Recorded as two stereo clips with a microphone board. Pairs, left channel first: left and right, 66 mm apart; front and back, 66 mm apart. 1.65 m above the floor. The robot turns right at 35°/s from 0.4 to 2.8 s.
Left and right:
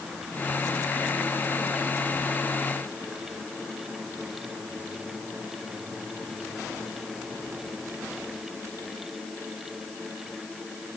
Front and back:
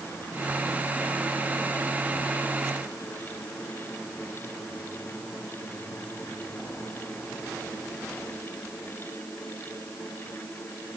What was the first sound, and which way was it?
Only background noise.